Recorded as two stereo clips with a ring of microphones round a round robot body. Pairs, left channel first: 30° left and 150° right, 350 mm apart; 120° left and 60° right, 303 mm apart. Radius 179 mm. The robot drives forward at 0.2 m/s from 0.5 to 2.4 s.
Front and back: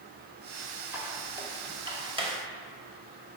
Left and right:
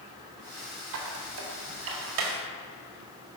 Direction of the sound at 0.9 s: 65° right.